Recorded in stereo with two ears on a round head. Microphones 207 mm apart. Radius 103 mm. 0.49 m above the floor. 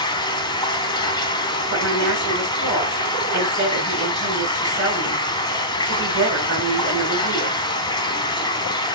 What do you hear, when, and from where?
0.0 s running water: 20° left (ahead or behind), 0.9 m
1.7 s a woman speaking: 50° right (ahead or behind), 6 m